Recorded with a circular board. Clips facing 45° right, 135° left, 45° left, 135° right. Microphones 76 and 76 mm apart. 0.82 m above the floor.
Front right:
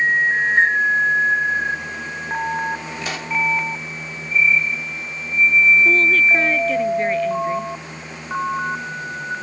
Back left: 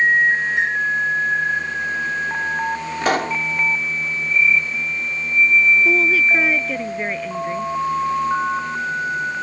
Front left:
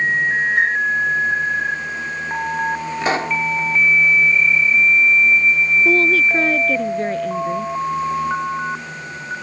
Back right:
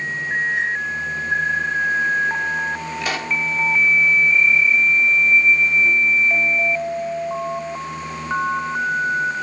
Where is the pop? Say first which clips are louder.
Back left 7 dB, front left 6 dB; 100° left.